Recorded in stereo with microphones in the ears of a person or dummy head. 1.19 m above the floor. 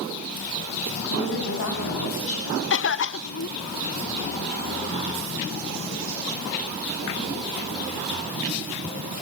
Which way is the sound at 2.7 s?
55° left (ahead or behind).